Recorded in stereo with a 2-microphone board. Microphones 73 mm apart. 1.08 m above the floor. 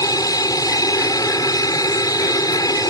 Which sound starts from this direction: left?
An aircraft, at 0.0 s.